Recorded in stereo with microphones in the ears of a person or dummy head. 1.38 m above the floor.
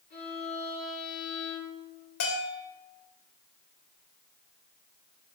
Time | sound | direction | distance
0.1 | a violin | 45° left (ahead or behind) | 4 m
2.2 | a bell | 60° left (ahead or behind) | 2.0 m